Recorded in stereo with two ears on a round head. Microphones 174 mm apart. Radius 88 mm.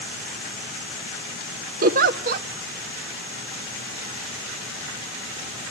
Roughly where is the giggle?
Right.